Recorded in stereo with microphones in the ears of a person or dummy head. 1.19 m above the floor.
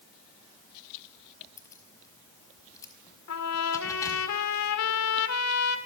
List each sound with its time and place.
1.6 s keys jangling: 15° left (ahead or behind), 4.5 m
3.3 s a trumpet: 85° left, 3 m